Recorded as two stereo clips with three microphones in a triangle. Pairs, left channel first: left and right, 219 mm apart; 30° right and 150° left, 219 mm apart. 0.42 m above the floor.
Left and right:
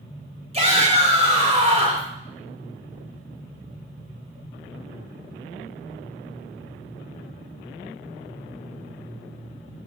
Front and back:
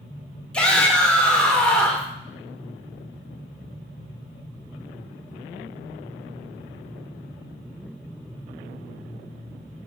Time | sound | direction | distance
0.5 | a shout | 110° right | 1.4 m